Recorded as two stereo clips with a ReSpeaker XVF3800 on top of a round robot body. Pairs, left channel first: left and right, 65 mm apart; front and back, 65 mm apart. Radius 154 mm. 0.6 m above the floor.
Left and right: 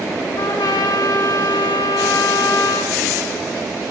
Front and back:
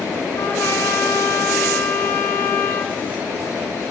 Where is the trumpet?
60° left, 0.6 m.